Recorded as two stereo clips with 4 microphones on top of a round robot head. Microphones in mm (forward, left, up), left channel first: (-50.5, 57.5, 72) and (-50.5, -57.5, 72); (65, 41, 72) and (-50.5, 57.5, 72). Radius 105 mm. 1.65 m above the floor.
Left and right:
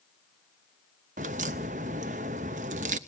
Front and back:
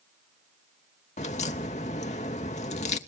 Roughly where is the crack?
Ahead right.